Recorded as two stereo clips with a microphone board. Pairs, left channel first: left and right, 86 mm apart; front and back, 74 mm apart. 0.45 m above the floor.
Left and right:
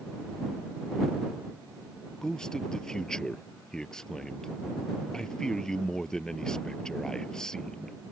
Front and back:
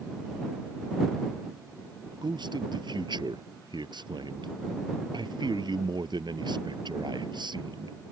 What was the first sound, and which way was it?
A man speaking, 175° left.